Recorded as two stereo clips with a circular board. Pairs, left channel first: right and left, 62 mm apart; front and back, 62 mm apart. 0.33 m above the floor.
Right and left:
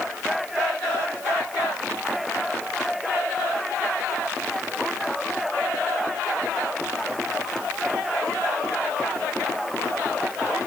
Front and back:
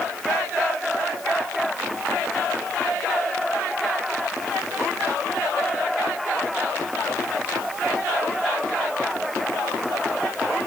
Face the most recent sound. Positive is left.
No sound to turn to.